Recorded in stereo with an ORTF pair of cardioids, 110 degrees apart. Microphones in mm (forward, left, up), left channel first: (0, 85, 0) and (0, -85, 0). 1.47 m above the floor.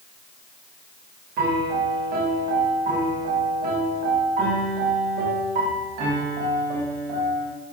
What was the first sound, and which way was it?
A piano, 65° right.